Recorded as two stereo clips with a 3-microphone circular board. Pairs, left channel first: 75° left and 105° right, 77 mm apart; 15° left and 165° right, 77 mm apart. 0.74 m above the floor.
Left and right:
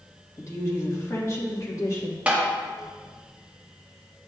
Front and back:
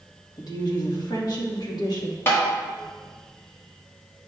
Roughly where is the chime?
No chime in this recording.